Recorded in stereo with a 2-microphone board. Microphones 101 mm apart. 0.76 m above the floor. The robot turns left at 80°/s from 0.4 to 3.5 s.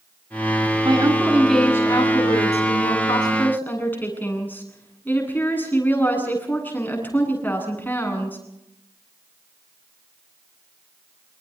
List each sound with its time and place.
0.8 s a woman speaking: 130° right, 9 m; by 8.4 s 20° left, 9 m